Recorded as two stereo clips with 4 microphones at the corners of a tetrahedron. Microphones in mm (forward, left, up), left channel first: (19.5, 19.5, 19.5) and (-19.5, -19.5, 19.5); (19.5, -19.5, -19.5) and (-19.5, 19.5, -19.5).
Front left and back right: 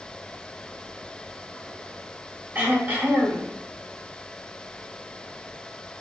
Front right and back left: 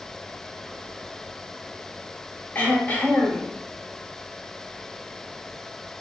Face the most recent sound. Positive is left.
turn(degrees=-90)